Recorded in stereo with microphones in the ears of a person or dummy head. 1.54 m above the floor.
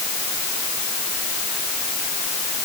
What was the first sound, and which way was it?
Only background noise.